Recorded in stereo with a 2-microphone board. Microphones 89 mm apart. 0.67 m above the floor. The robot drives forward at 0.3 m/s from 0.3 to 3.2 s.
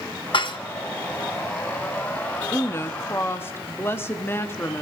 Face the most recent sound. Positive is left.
turn(degrees=25)  # may be behind; listen again after turning